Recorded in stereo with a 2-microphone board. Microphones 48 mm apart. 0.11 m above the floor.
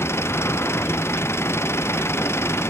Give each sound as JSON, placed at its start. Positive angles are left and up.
{"t": 0.0, "sound": "an engine running", "side_deg": 65}